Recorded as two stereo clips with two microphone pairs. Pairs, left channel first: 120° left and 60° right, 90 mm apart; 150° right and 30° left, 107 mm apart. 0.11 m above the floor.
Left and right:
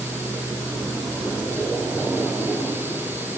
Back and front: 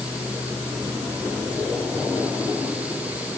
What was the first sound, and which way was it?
Only background noise.